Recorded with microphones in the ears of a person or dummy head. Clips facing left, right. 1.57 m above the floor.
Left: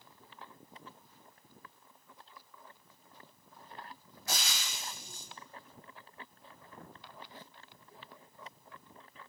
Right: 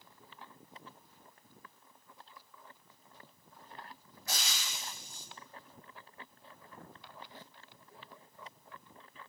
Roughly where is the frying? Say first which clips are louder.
Left 2 dB; left.